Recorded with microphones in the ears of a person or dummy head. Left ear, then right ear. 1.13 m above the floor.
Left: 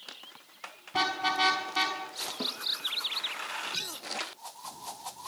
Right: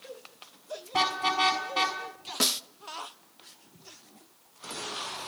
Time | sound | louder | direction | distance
0.9 | a car horn | right 2 dB | 10° right (ahead or behind) | 5 m
2.4 | a snare drum | right 9 dB | 55° right (ahead or behind) | 0.8 m